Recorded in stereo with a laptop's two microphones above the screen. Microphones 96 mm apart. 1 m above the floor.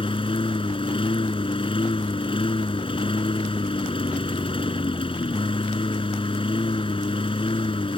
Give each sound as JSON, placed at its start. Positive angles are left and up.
{"t": 0.0, "sound": "a lawn mower", "side_deg": 70}